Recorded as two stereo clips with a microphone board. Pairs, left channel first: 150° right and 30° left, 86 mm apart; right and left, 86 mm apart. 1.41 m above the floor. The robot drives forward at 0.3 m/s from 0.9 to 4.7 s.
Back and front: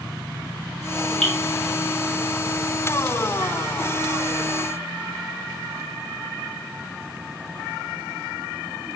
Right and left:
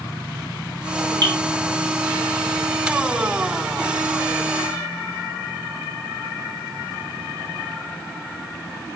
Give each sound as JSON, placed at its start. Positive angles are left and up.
{"t": 1.2, "sound": "dripping", "azimuth_deg": 125, "distance_m": 3.5}